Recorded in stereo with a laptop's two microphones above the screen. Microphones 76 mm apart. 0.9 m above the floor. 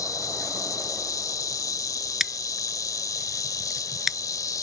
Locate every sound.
0.0 s an insect: 50° left (ahead or behind)
2.2 s scissors: 5° right (ahead or behind)